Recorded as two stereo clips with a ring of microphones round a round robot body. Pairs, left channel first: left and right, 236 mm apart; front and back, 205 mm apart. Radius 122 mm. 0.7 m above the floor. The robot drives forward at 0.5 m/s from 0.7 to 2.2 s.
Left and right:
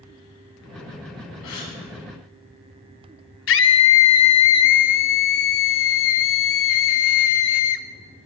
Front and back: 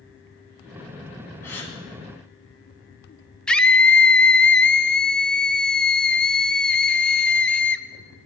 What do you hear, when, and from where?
1.4 s a gasp: 80° left, 2.5 m
3.5 s a scream: 85° left, 0.7 m